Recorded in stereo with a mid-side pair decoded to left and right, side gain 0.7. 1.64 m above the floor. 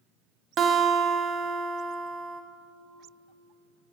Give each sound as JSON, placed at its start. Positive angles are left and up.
{"t": 0.6, "sound": "a guitar", "azimuth_deg": -35, "distance_m": 0.8}